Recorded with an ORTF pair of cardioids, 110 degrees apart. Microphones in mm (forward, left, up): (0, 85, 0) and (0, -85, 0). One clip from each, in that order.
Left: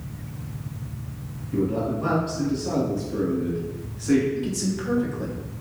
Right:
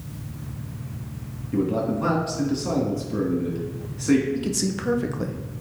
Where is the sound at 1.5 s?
30° right, 2.5 m.